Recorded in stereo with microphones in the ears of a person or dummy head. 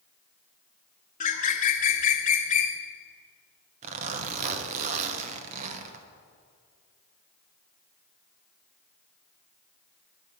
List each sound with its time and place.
1.2 s a bird: 45° left (ahead or behind), 0.9 m
3.8 s a zipper: 45° right (ahead or behind), 1.0 m